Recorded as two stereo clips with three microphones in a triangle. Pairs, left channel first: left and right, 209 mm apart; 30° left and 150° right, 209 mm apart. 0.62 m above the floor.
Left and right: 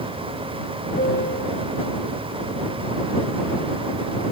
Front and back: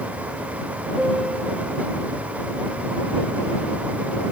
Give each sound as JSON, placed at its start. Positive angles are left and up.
{"t": 1.0, "sound": "a piano", "azimuth_deg": 125}